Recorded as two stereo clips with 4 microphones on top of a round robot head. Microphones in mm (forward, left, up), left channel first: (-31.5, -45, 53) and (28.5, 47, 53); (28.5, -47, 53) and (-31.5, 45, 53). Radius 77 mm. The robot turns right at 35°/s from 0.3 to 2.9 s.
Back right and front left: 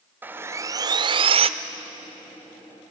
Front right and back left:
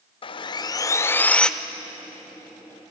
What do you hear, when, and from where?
0.2 s sawing: 15° right, 0.6 m; by 1.5 s 25° left, 0.6 m